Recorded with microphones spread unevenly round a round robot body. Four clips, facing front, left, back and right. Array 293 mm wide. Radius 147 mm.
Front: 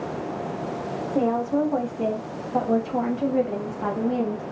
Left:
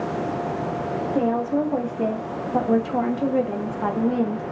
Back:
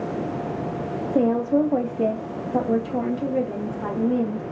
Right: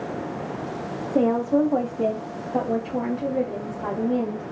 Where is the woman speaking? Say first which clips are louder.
Right 3 dB, back 3 dB; 145° right, 1.2 m; by 4.4 s 80° left, 1.3 m.